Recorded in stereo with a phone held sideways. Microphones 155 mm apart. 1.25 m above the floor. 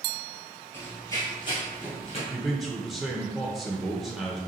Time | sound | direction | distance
0.7 | running footsteps | 15° left (ahead or behind) | 1.6 m
2.3 | a man speaking | centre (ahead or behind) | 0.6 m